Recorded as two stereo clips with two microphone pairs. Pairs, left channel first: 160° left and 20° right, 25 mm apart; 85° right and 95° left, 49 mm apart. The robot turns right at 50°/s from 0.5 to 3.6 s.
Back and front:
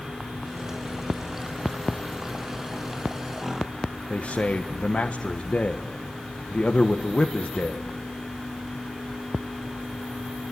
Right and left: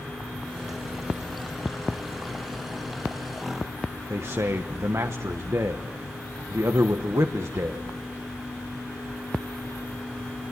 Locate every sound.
4.1 s a man speaking: 115° left, 1.4 m